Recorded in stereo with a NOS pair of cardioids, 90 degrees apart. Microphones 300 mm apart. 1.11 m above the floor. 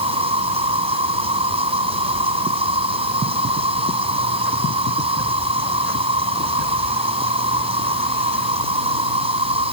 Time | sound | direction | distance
0.0 | an insect | 20° right | ?